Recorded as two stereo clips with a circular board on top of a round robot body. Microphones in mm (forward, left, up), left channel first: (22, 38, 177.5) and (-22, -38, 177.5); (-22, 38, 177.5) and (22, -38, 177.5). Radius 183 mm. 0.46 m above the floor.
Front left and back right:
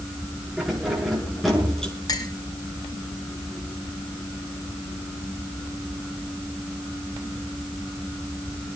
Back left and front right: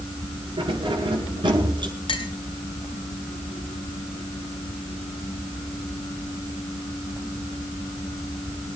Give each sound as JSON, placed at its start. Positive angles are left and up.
{"t": 0.6, "sound": "keys jangling", "azimuth_deg": -35, "distance_m": 7.0}
{"t": 2.1, "sound": "a clink", "azimuth_deg": 105, "distance_m": 3.5}